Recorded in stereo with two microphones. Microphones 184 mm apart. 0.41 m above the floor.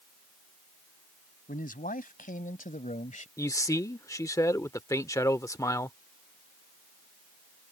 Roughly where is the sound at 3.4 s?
Centre.